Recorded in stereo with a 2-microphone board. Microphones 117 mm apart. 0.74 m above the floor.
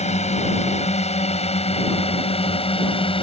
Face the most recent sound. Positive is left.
turn(degrees=50)  # may be behind; listen again after turning